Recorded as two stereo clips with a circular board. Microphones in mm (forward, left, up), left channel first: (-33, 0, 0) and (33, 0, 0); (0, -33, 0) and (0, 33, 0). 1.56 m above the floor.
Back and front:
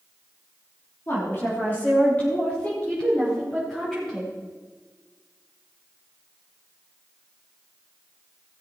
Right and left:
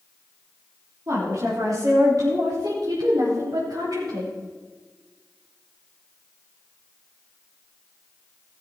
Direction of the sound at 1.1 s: 130° left.